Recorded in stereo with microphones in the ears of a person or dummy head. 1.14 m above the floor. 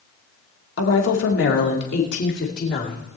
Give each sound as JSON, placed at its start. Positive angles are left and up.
{"t": 0.8, "sound": "a woman speaking", "side_deg": 75, "distance_m": 2.0}